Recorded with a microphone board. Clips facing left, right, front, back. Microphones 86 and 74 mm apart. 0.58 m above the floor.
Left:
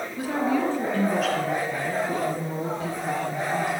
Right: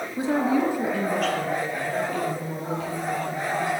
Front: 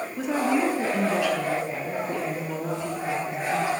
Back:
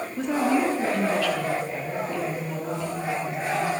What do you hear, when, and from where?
0.2 s a woman speaking: 85° right, 1.2 m; by 3.7 s 50° left, 2 m